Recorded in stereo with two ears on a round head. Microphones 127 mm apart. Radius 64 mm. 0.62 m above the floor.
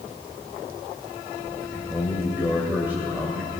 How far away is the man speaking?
About 2.5 m.